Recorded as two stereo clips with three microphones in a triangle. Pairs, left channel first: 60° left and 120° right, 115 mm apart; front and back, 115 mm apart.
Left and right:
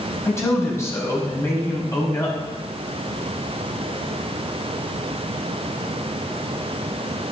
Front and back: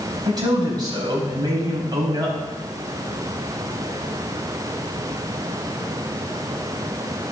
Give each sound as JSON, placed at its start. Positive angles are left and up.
{"t": 0.2, "sound": "a man speaking", "azimuth_deg": 125, "distance_m": 5.5}